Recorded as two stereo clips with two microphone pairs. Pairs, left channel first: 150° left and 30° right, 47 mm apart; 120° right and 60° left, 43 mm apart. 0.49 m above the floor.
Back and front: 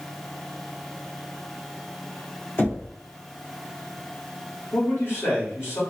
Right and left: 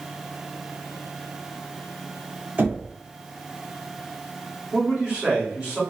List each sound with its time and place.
2.6 s knocking: 110° left, 1.1 m
4.7 s a man speaking: 125° left, 1.7 m